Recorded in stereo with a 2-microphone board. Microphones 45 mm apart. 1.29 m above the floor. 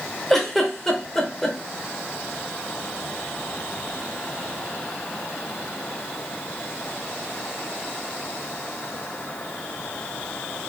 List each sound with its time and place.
0.3 s a giggle: 5° left (ahead or behind), 0.6 m